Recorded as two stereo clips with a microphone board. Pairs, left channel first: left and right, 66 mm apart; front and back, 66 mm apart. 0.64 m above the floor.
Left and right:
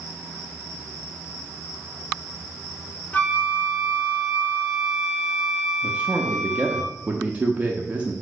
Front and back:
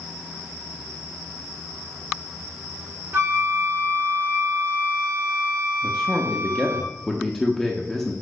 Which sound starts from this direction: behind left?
A flute, at 3.1 s.